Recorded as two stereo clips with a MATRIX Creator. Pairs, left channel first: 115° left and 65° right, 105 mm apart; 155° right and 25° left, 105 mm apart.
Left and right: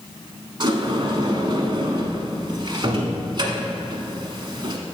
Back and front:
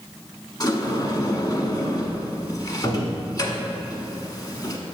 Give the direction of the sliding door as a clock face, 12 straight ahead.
4 o'clock.